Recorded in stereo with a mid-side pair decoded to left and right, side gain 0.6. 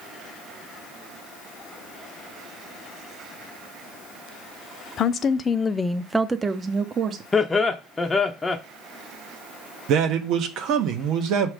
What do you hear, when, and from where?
5.0 s a woman speaking: 50° left, 0.8 m; by 7.2 s 45° right, 0.9 m
7.3 s laughter: 20° left, 0.7 m
9.9 s a man speaking: 65° right, 1.2 m